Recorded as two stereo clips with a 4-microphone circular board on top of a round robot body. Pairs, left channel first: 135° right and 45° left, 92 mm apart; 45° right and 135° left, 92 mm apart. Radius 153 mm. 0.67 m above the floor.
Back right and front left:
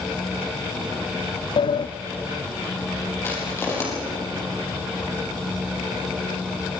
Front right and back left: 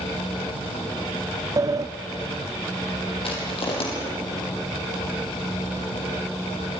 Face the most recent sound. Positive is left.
turn(degrees=-70)